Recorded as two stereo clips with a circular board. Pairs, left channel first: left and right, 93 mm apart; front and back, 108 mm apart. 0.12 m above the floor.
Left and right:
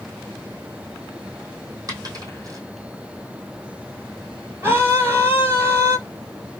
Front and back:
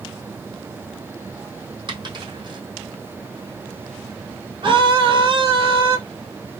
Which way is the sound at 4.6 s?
150° right.